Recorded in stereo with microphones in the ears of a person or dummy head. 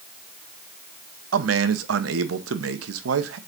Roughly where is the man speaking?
Right.